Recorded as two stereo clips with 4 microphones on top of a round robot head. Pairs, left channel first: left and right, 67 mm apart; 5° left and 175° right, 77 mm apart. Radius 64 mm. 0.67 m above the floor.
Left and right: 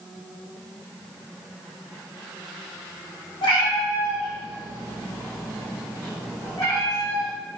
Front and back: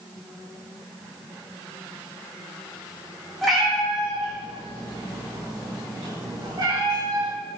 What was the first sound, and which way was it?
A cat meowing, 95° left.